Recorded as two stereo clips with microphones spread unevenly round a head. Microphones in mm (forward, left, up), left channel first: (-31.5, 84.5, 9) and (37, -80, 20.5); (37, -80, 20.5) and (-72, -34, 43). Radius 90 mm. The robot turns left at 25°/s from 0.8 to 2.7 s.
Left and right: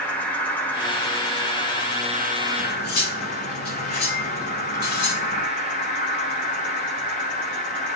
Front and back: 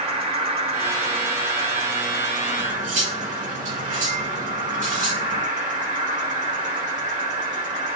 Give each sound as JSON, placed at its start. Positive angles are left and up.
{"t": 0.0, "sound": "an insect", "azimuth_deg": -170, "distance_m": 4.0}
{"t": 2.6, "sound": "cutlery clinking", "azimuth_deg": 145, "distance_m": 7.5}